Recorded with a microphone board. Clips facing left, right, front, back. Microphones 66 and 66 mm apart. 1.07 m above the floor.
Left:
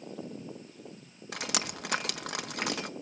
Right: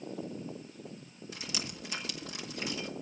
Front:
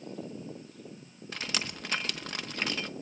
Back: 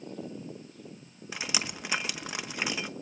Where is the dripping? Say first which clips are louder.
Left 7 dB, back 1 dB; 105° left, 0.9 m.